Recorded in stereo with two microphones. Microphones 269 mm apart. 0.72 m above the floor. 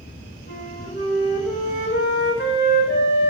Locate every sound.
0.5 s a flute: 40° left (ahead or behind), 2 m